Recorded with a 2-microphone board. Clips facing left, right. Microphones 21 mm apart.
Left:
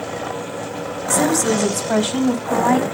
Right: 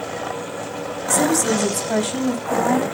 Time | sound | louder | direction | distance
1.1 | a woman speaking | left 1 dB | centre (ahead or behind) | 2.5 m